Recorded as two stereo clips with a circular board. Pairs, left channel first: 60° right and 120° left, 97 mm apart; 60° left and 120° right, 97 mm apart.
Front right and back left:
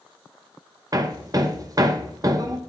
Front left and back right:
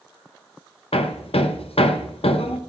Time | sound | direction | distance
0.9 | hammering | 70° left | 0.6 m